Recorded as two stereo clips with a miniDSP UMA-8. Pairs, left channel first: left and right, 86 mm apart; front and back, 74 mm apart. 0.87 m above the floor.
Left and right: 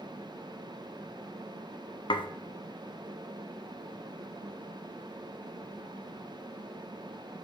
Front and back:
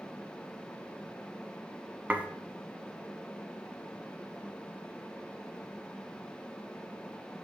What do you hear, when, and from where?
2.1 s dishes clattering: 110° left, 0.7 m